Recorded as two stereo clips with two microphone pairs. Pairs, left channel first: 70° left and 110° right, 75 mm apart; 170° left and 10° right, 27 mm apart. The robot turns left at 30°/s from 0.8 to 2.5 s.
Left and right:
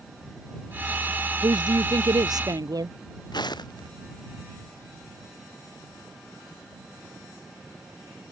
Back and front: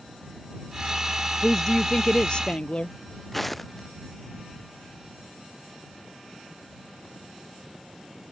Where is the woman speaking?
105° right; by 3.0 s 140° right.